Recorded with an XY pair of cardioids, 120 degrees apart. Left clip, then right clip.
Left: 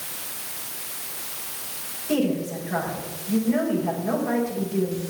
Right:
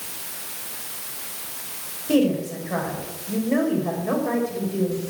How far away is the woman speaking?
About 4.5 m.